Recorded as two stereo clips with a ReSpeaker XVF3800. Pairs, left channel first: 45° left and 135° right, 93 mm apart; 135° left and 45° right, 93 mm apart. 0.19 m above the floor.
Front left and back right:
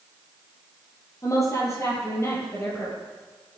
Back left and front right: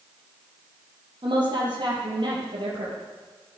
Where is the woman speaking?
10° right, 6.5 m; by 3.0 s 20° right, 5.5 m.